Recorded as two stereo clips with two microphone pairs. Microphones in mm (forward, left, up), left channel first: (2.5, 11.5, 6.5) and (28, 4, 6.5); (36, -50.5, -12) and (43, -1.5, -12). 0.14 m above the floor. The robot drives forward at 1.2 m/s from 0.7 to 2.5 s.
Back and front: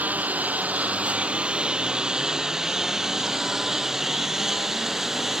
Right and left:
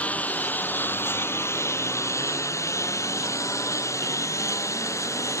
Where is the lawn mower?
35° right; by 5.4 s 95° right.